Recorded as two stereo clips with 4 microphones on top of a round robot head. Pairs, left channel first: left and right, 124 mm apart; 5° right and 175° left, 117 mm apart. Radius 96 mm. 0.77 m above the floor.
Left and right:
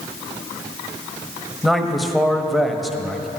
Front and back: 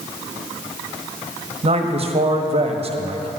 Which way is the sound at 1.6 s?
Straight behind.